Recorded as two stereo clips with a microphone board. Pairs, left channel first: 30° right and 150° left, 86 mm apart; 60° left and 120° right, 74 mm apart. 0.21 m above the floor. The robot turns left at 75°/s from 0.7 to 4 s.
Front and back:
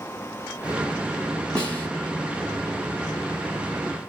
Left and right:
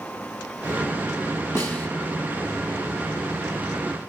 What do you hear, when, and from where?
1.6 s a snare drum: 40° left, 1.9 m; by 1.9 s 15° left, 1.9 m